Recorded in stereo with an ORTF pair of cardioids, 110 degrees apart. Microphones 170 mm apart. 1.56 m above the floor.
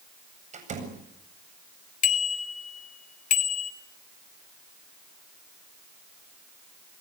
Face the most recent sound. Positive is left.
turn(degrees=50)